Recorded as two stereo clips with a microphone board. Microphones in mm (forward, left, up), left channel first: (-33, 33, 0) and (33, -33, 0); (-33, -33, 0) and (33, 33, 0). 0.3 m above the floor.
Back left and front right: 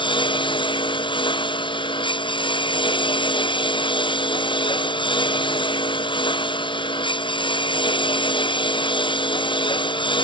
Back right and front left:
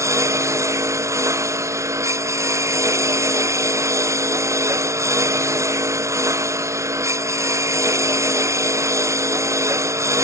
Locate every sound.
0.0 s a lawn mower: 105° left